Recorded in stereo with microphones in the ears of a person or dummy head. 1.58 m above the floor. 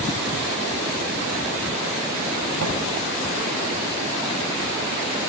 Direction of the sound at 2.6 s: 80° right.